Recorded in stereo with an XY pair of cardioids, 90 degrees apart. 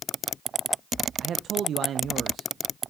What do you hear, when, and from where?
1.2 s a man speaking: 70° right, 0.5 m